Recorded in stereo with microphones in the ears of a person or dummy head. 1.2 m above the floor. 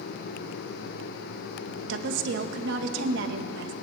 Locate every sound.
1.9 s a woman speaking: 70° right (ahead or behind), 1.3 m